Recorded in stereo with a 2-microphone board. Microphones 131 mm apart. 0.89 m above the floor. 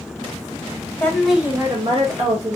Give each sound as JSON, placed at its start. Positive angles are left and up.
{"t": 1.0, "sound": "a woman speaking", "side_deg": 15, "distance_m": 0.8}